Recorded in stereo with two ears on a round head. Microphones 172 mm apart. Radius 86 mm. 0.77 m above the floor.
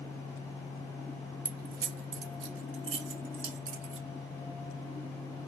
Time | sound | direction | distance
1.4 | keys jangling | 45° right (ahead or behind) | 0.9 m